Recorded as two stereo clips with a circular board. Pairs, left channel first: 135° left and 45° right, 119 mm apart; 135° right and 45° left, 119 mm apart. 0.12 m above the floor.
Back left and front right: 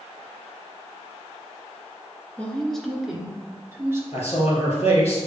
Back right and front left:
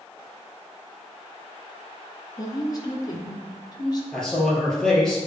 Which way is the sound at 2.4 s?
155° right.